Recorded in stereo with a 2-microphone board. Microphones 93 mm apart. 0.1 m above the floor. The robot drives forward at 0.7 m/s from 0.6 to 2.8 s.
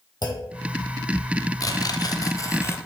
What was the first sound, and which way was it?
A clunk, 50° left (ahead or behind).